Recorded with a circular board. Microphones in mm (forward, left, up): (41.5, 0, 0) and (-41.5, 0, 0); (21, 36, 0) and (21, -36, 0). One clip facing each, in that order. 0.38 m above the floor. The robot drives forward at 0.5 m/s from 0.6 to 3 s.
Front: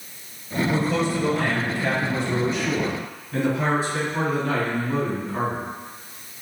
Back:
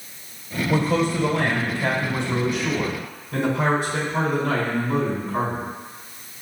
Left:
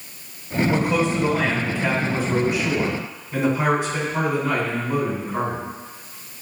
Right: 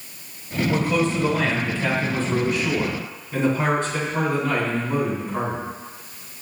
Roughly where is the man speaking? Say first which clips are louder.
Back 3 dB, even; behind.